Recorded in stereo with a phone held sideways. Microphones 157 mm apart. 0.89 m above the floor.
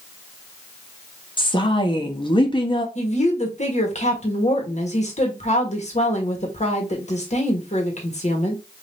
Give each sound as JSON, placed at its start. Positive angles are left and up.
{"t": 1.4, "sound": "a woman speaking", "side_deg": 30, "distance_m": 1.0}
{"t": 3.0, "sound": "a woman speaking", "side_deg": 45, "distance_m": 1.5}